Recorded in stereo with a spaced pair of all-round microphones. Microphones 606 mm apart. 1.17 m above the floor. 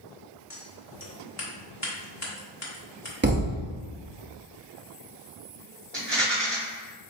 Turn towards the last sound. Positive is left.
turn(degrees=-45)  # may be behind; listen again after turning